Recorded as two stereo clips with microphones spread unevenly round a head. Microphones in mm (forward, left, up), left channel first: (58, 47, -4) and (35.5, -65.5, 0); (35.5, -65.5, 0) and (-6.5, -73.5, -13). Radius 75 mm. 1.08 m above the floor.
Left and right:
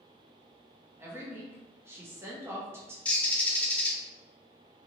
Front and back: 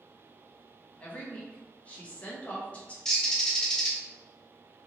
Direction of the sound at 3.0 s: 10° left.